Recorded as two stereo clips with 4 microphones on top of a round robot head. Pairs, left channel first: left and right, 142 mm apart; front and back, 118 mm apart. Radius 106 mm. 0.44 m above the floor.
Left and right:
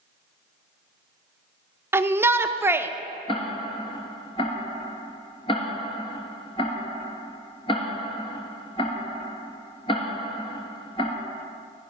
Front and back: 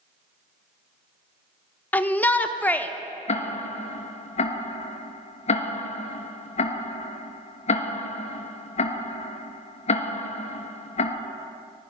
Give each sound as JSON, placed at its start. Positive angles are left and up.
{"t": 1.9, "sound": "a shout", "azimuth_deg": -50, "distance_m": 0.8}
{"t": 3.3, "sound": "ticking", "azimuth_deg": 25, "distance_m": 1.3}